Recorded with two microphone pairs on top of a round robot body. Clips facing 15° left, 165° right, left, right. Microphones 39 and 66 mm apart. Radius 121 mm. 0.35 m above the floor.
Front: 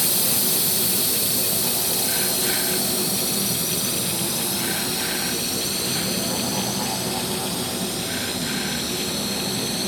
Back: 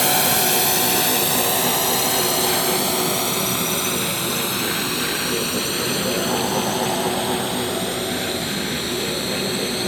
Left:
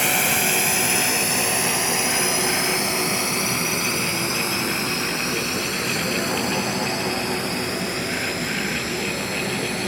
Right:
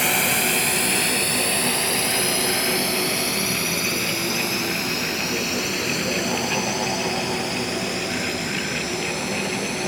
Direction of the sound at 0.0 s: Straight behind.